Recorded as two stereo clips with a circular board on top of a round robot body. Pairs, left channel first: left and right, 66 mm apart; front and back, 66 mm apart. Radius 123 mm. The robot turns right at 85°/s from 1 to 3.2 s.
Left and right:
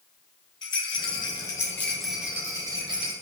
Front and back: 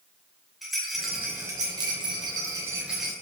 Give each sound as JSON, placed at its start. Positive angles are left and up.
{"t": 0.6, "sound": "a rattle", "azimuth_deg": 90, "distance_m": 1.1}